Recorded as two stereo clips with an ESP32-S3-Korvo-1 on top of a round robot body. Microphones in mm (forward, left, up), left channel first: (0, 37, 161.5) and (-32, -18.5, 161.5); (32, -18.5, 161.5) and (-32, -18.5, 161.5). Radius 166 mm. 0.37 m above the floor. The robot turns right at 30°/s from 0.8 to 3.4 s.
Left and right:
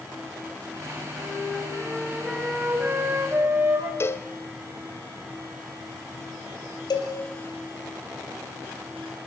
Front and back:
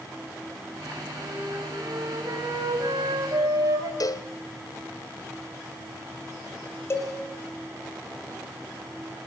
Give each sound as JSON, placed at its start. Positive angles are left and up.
{"t": 1.2, "sound": "a flute", "azimuth_deg": 125, "distance_m": 4.0}
{"t": 4.0, "sound": "a cowbell", "azimuth_deg": 15, "distance_m": 1.9}
{"t": 6.9, "sound": "a cowbell", "azimuth_deg": 55, "distance_m": 4.0}